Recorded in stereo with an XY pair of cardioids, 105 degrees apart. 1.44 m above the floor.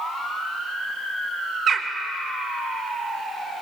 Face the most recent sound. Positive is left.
turn(degrees=-50)